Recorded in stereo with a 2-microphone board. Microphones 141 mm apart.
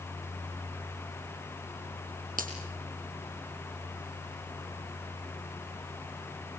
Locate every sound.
2.4 s a finger snap: 80° right, 5 m